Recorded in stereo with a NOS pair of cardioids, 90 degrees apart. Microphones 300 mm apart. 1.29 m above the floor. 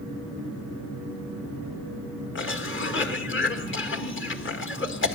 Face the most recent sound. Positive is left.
turn(degrees=40)